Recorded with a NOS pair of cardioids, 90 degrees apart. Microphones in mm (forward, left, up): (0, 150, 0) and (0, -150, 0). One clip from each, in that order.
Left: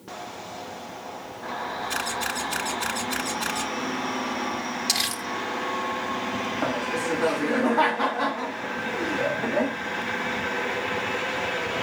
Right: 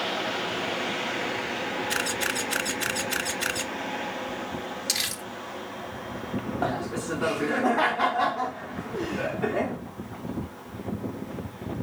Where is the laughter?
Straight ahead, 1.2 m.